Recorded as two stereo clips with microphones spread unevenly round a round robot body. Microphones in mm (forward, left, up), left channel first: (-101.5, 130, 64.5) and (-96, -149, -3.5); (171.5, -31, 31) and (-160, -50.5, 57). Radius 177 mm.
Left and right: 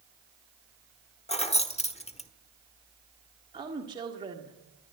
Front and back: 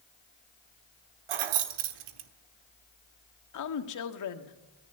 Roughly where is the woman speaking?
Ahead.